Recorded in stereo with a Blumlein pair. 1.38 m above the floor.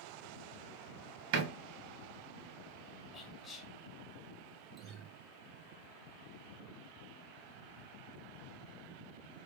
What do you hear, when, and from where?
1.3 s a door slam: 45° right, 1.0 m
3.1 s whispering: 20° left, 1.4 m
4.8 s a guitar: 30° right, 0.9 m